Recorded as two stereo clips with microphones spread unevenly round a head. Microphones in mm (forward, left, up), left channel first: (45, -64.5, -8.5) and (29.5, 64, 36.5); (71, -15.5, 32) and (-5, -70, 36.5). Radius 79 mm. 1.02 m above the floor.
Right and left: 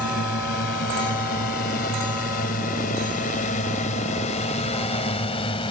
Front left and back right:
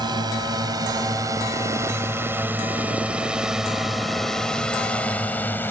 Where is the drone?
105° right; by 5.7 s 30° right.